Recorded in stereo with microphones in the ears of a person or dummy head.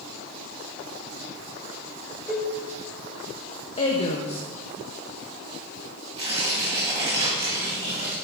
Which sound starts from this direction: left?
A woman speaking, at 3.8 s.